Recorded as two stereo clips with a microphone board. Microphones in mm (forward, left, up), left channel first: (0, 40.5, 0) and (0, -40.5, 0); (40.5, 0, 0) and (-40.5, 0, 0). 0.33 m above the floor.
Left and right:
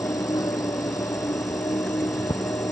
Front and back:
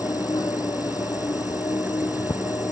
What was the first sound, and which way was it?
An insect, 45° left.